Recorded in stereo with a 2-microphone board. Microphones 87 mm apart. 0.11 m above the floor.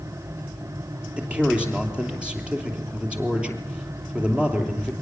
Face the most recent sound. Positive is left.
turn(degrees=-10)  # may be behind; listen again after turning